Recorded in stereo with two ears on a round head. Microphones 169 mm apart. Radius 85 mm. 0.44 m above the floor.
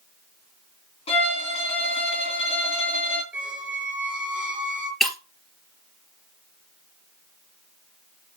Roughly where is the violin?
Left.